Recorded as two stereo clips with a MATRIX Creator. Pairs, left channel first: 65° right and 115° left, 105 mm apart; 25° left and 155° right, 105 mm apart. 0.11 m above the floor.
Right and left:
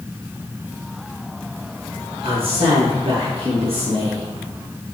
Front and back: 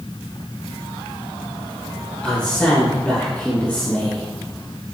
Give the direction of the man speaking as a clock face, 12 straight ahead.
9 o'clock.